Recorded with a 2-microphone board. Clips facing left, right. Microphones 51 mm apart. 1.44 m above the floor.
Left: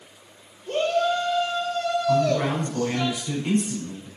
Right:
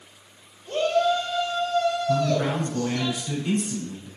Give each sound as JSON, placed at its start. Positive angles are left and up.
{"t": 0.7, "sound": "a shout", "side_deg": 60, "distance_m": 5.0}
{"t": 2.1, "sound": "a man speaking", "side_deg": 75, "distance_m": 5.0}